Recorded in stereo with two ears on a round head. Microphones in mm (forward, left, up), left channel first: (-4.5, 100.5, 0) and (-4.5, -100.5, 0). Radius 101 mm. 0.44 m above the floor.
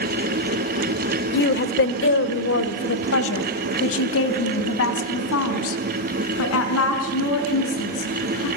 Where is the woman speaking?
45° left (ahead or behind), 1.2 m; by 8.5 s 70° left (ahead or behind), 5.5 m.